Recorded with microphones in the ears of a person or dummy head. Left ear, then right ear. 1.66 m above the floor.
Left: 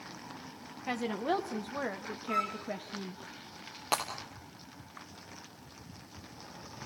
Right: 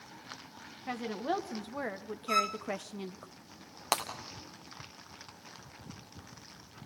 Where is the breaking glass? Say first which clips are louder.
Even; 35° right (ahead or behind), 2.5 m.